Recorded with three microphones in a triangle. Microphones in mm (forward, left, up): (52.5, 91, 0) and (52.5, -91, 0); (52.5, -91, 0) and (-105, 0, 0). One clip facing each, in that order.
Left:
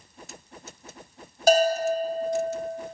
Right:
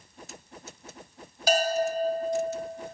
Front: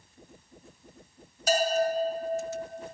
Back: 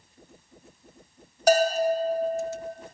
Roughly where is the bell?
Behind left.